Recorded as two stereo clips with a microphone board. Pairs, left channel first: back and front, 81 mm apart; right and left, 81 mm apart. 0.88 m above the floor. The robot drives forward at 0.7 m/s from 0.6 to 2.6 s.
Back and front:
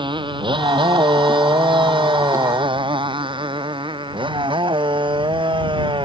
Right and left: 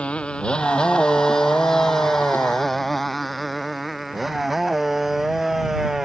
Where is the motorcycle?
15° right; by 6.0 s 5° left.